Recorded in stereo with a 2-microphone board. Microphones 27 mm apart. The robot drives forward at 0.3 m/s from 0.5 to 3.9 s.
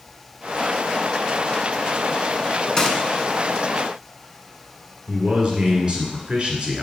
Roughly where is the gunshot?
Left.